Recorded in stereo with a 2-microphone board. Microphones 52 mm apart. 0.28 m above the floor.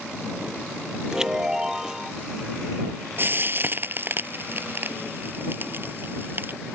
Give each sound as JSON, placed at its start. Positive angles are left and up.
{"t": 1.1, "sound": "a chime", "side_deg": -10}
{"t": 3.2, "sound": "frying", "side_deg": -40}